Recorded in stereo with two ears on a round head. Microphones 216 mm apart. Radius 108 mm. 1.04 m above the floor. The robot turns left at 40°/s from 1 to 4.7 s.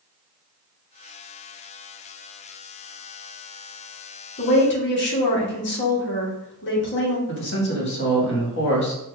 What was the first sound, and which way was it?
A woman speaking, 35° left (ahead or behind).